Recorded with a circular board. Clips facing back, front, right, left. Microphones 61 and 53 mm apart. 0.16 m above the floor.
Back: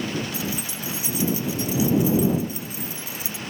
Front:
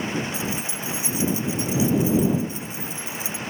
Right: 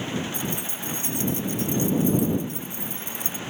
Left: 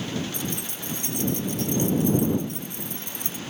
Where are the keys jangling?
65° left.